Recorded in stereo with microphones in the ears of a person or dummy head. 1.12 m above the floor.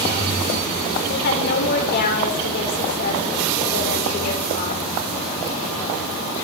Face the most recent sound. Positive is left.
turn(degrees=50)  # may be behind; listen again after turning